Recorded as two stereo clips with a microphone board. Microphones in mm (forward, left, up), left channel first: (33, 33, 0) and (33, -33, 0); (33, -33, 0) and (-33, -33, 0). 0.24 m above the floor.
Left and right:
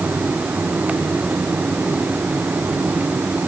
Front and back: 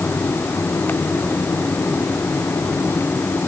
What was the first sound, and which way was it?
Only background noise.